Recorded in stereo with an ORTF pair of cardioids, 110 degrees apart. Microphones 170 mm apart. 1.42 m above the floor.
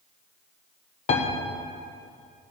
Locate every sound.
1.1 s a piano: 40° left, 1.3 m